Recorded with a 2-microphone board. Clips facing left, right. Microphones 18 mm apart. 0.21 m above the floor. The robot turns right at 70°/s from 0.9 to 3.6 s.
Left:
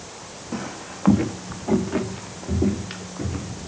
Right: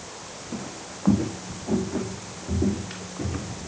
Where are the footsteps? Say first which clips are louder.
Left 5 dB; 55° left (ahead or behind), 0.8 m; by 3.7 s 10° right (ahead or behind), 2 m.